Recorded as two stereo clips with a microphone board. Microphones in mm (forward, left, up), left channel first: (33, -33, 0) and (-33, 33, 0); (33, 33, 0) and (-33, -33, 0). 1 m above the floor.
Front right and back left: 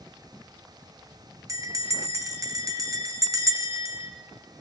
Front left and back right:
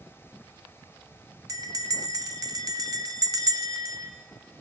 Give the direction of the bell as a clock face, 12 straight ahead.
6 o'clock.